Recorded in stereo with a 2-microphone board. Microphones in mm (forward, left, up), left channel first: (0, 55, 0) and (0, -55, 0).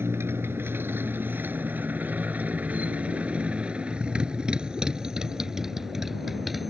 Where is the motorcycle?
20° right (ahead or behind); by 6.7 s centre (ahead or behind).